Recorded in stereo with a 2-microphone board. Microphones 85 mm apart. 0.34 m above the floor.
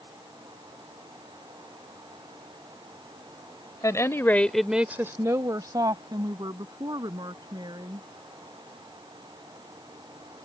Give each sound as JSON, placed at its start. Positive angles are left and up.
{"t": 3.8, "sound": "a woman speaking", "side_deg": 40}